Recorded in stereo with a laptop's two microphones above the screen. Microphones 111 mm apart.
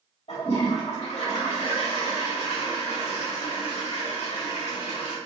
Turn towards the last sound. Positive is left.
turn(degrees=75)  # may be behind; listen again after turning